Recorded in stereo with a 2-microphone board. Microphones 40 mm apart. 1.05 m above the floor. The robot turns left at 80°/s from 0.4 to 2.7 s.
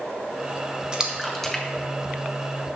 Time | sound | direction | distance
0.9 | a splash | 20° right (ahead or behind) | 0.8 m